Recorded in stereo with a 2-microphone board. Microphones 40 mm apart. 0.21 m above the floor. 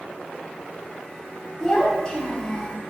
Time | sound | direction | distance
1.6 | a child speaking | 20° left (ahead or behind) | 0.8 m